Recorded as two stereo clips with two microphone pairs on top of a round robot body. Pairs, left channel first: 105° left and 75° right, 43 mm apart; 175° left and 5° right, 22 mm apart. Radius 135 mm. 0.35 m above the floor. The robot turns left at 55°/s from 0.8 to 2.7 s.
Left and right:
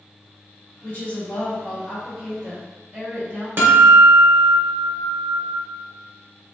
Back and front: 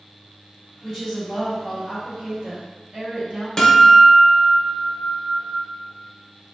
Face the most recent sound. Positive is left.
turn(degrees=-115)